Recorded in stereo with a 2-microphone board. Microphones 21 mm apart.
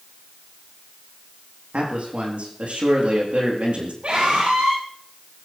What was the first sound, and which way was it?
A man speaking, 75° right (ahead or behind).